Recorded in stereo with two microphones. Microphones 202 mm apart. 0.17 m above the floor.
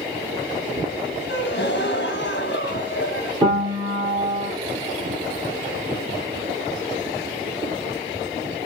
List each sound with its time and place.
1.3 s a gasp: 55° left (ahead or behind), 1.4 m
3.4 s a piano: 20° right (ahead or behind), 3 m